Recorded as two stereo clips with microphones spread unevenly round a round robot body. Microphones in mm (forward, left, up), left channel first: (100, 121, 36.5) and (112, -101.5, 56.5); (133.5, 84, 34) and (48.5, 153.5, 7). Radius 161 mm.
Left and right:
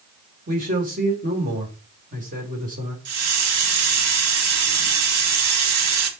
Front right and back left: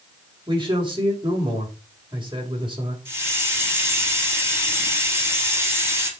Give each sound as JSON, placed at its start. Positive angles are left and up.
{"t": 0.5, "sound": "a man speaking", "azimuth_deg": -150, "distance_m": 3.5}
{"t": 3.0, "sound": "a hiss", "azimuth_deg": -105, "distance_m": 2.0}